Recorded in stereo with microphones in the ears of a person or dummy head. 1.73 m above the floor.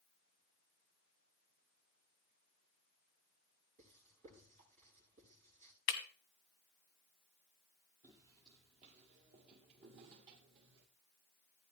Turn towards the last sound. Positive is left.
turn(degrees=-50)  # may be behind; listen again after turning